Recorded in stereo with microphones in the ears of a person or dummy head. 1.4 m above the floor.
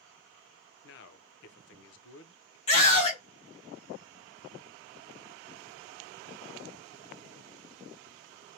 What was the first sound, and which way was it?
A man speaking, 65° left (ahead or behind).